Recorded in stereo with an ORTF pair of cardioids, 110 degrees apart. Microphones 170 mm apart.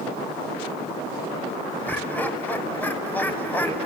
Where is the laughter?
10° left, 5 m.